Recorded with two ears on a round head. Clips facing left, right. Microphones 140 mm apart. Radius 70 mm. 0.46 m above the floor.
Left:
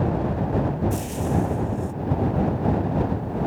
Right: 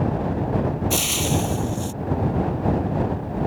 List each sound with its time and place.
0.9 s frying: 80° right